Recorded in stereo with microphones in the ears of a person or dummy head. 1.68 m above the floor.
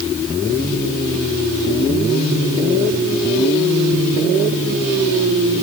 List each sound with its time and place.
Only background noise.